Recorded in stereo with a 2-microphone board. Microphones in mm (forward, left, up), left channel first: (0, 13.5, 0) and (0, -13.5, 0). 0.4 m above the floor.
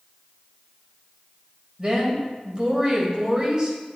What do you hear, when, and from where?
1.8 s a woman speaking: 30° right (ahead or behind), 2.0 m